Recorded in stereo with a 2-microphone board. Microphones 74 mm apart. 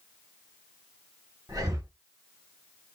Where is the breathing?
55° right (ahead or behind), 1.1 m.